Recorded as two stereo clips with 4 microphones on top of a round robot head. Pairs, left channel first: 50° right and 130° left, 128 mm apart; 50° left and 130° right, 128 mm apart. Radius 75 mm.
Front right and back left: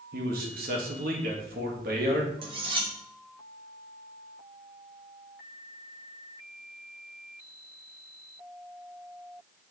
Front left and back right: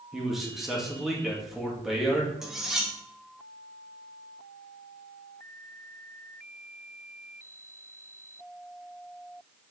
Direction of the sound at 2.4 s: 145° left.